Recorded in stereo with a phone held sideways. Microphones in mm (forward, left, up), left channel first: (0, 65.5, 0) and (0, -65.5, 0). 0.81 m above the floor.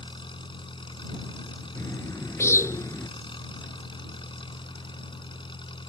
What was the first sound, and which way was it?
An engine running, 40° left (ahead or behind).